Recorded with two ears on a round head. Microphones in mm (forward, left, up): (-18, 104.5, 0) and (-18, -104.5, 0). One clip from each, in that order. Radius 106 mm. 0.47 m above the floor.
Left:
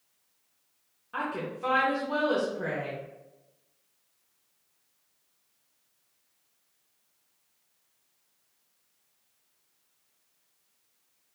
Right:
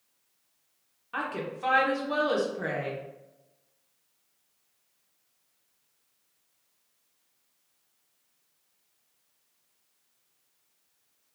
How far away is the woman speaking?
About 0.8 m.